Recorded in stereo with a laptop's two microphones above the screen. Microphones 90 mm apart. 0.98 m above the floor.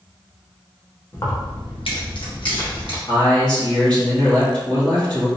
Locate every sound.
1.1 s keys jangling: 30° left (ahead or behind), 0.6 m; by 3.0 s 55° left (ahead or behind), 1.4 m
3.1 s a man speaking: 35° left (ahead or behind), 0.9 m